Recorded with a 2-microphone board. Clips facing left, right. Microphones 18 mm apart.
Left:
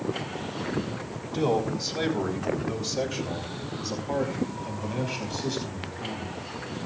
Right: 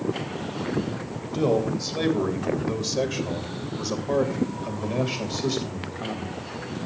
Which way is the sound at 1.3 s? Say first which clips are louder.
Right 2 dB; 5° right (ahead or behind).